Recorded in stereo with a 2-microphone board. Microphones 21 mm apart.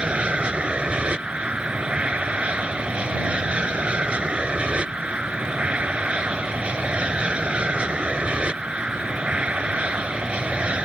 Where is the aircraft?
60° right (ahead or behind).